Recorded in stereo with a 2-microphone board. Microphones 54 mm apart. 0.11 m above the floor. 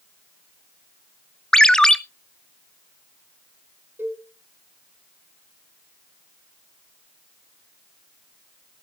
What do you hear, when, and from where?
1.5 s a ringtone: 10° left (ahead or behind), 0.6 m
4.0 s a cowbell: 45° right (ahead or behind), 4 m